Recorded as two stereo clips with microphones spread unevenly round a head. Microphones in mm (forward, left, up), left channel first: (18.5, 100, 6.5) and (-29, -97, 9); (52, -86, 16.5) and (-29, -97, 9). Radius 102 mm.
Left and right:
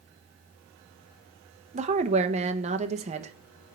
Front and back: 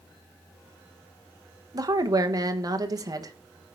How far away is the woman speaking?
About 1.0 m.